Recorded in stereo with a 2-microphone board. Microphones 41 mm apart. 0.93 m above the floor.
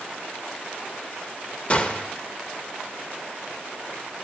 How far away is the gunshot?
About 0.7 m.